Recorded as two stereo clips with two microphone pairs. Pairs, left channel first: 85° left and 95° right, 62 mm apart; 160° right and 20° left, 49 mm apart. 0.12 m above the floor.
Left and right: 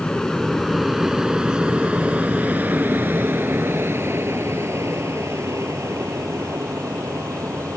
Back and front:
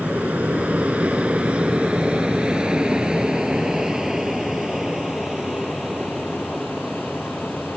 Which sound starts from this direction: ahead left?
An aircraft, at 0.0 s.